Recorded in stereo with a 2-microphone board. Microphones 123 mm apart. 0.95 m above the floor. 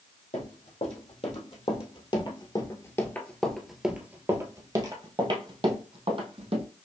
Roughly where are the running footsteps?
Left.